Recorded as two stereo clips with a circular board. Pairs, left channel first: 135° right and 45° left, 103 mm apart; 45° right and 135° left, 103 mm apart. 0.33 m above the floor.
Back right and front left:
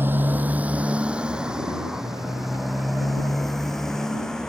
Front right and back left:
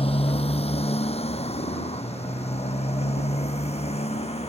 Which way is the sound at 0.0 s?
25° right.